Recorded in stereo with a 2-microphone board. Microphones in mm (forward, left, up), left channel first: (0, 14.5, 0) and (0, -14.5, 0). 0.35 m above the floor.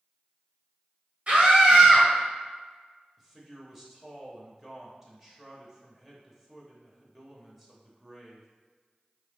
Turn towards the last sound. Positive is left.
turn(degrees=-10)  # may be behind; listen again after turning